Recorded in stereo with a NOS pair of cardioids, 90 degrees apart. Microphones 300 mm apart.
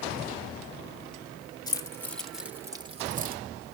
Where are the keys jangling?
15° left, 1.4 m; by 3.4 s 35° right, 1.0 m.